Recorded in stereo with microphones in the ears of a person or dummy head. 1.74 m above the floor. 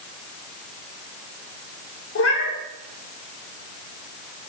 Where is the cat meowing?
70° left (ahead or behind), 3 m.